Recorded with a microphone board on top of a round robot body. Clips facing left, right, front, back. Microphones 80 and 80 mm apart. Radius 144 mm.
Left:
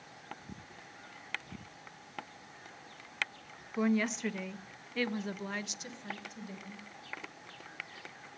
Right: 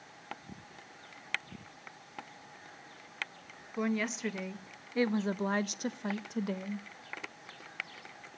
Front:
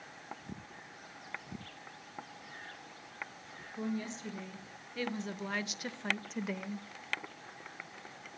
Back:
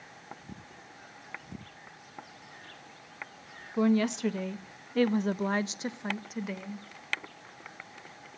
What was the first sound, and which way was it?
A woman speaking, straight behind.